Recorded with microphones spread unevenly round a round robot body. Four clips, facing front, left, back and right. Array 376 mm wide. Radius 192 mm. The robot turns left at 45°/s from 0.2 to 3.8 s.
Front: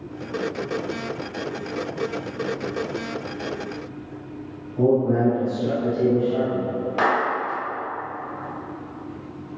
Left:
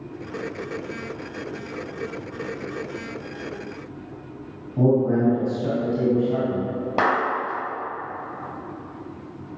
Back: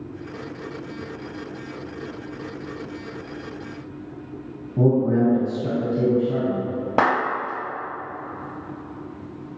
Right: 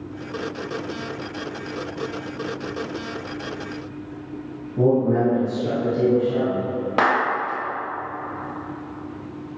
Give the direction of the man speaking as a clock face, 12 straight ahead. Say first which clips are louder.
Right 1 dB, even; 7 o'clock.